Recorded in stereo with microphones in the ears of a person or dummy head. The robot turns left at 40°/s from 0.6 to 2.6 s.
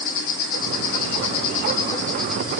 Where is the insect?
65° left, 1.0 m; by 2.6 s 15° right, 1.0 m.